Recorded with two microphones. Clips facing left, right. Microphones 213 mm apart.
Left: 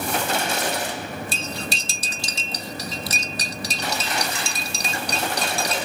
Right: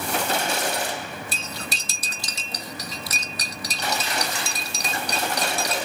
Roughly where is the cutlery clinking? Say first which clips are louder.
Left 5 dB; left.